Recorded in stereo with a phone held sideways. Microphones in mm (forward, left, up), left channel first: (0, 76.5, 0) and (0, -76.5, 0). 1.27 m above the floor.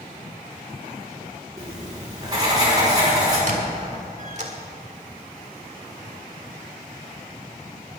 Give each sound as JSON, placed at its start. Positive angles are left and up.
{"t": 1.6, "sound": "writing", "side_deg": -25, "distance_m": 5.0}
{"t": 3.5, "sound": "a squeak", "side_deg": -50, "distance_m": 1.7}